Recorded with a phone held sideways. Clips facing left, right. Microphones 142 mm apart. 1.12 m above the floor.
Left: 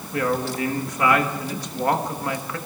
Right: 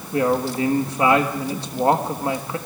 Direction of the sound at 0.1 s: 30° right (ahead or behind).